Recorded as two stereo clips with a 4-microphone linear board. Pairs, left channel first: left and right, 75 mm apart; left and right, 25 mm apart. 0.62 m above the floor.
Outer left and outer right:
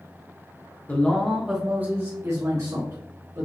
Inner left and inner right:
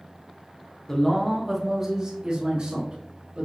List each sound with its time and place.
0.9 s a man speaking: 20° left (ahead or behind), 1.0 m; by 3.5 s 60° right (ahead or behind), 2 m